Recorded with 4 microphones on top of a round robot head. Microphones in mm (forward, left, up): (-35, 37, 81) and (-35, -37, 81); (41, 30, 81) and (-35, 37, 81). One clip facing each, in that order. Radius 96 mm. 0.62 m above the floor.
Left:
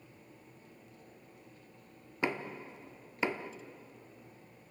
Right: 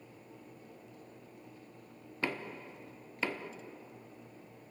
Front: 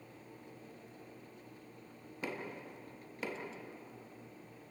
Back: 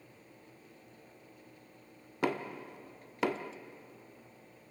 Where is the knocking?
160° left, 1.1 m.